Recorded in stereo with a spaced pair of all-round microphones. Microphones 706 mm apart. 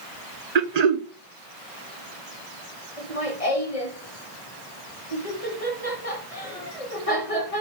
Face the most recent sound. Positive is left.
turn(degrees=50)  # may be behind; listen again after turning